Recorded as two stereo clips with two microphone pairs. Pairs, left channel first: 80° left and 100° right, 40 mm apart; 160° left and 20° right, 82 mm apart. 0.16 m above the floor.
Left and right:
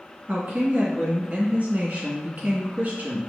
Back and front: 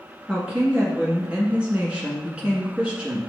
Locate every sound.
0.3 s a woman speaking: 85° right, 1.4 m